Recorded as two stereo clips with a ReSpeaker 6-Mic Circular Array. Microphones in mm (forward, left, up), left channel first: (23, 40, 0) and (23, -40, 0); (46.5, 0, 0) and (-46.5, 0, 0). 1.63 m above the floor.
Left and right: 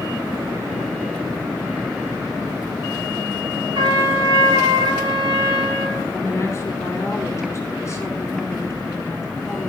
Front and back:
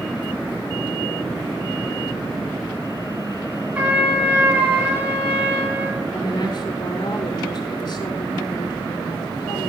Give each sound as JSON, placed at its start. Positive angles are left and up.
{"t": 3.8, "sound": "a trumpet", "azimuth_deg": -110, "distance_m": 6.0}
{"t": 6.1, "sound": "a woman speaking", "azimuth_deg": 35, "distance_m": 5.5}